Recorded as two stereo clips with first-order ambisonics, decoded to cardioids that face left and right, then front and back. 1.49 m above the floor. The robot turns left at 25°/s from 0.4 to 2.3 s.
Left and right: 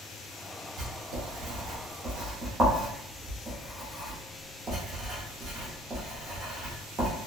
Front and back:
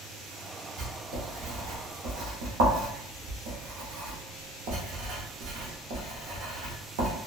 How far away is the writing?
About 0.8 m.